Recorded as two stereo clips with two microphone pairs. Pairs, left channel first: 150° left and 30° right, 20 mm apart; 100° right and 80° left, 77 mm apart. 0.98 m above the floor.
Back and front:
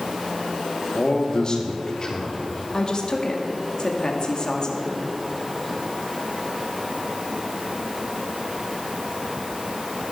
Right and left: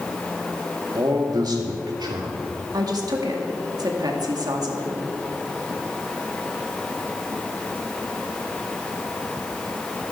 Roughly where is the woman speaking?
Left.